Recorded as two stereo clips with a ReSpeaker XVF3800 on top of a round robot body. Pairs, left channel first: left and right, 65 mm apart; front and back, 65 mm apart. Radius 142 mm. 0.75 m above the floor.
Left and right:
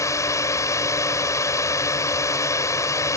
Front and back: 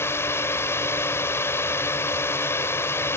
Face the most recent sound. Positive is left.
turn(degrees=50)